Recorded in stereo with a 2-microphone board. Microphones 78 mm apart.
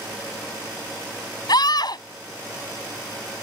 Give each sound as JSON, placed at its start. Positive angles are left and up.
{"t": 1.5, "sound": "a scream", "side_deg": 60}